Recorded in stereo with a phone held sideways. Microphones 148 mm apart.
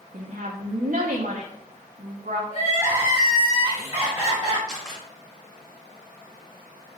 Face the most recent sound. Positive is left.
turn(degrees=0)  # may be behind; listen again after turning